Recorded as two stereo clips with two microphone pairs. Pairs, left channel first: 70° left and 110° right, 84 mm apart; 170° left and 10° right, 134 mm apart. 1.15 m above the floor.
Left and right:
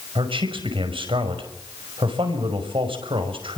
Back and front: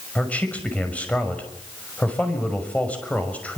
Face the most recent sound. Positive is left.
turn(degrees=-110)